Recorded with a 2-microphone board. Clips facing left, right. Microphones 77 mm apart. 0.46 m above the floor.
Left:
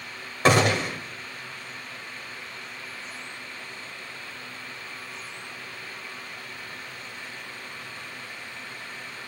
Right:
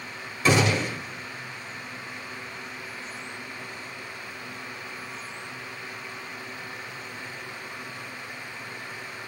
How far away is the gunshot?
About 2 m.